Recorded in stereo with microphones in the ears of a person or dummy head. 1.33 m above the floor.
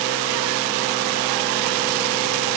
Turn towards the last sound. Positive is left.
No sound to turn to.